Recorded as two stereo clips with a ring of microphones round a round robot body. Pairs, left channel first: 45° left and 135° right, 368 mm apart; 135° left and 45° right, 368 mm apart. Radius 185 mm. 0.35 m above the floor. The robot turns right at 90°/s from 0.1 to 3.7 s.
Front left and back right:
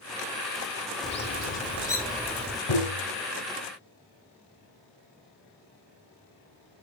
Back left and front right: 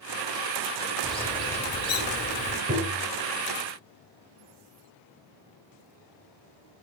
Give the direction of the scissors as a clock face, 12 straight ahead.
I don't hear scissors.